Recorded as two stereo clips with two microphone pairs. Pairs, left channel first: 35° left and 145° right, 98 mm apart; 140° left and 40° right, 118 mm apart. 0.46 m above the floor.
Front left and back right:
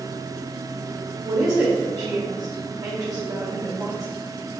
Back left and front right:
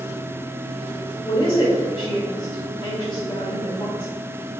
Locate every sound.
1.2 s a woman speaking: 175° left, 2 m